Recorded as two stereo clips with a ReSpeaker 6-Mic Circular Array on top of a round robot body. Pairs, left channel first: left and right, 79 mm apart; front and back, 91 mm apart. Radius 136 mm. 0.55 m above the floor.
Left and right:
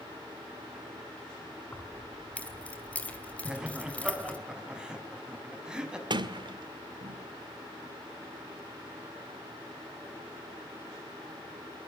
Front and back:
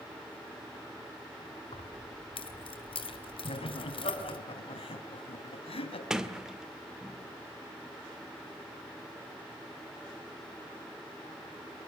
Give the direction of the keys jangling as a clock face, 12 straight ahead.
11 o'clock.